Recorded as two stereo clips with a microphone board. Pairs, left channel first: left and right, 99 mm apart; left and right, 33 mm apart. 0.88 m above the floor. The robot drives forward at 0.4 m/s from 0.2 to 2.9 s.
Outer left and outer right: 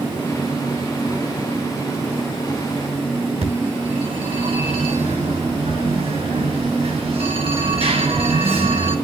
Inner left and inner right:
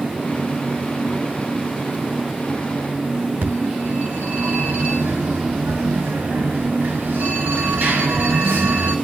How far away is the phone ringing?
About 7 m.